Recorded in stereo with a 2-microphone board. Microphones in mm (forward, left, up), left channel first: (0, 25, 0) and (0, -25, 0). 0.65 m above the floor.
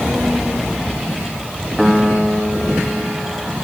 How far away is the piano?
About 1.5 m.